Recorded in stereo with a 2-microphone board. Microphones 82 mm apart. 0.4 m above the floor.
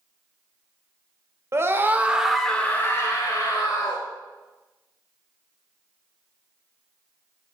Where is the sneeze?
I don't hear a sneeze.